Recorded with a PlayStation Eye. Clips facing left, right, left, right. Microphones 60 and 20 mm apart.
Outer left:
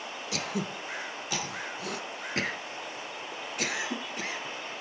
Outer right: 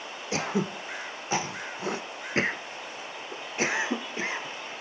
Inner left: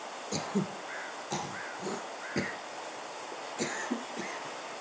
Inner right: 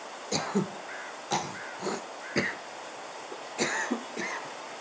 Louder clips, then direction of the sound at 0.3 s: Outer right 6 dB, inner right 4 dB; 30° right (ahead or behind).